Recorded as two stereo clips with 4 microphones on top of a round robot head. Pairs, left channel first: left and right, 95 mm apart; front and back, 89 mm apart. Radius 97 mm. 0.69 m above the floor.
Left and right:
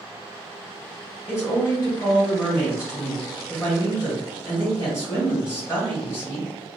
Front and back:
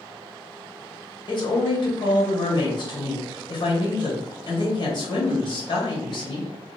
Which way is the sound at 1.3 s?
25° left.